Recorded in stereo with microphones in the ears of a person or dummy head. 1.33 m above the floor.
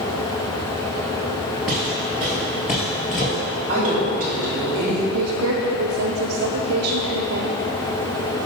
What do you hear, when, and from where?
1.7 s footsteps: 10° left (ahead or behind), 1.4 m; by 3.4 s 45° left (ahead or behind), 1.9 m
3.7 s a woman speaking: 40° right (ahead or behind), 2.0 m
5.1 s a woman speaking: 75° right (ahead or behind), 0.6 m